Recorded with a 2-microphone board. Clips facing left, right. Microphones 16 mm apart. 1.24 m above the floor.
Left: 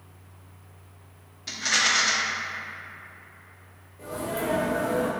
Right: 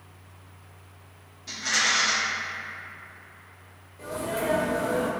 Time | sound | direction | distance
1.5 | a rattle | 45° left (ahead or behind) | 0.7 m
4.0 | a sneeze | 30° right (ahead or behind) | 0.7 m